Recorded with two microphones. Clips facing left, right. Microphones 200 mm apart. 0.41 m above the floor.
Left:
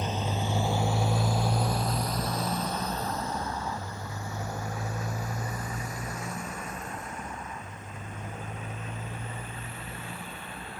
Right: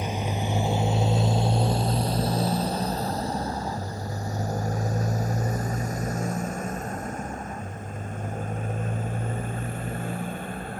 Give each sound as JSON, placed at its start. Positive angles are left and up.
{"t": 0.0, "sound": "a motorcycle", "side_deg": -10}